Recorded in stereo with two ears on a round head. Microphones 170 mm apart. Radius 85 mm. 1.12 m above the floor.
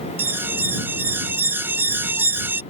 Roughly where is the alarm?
Centre.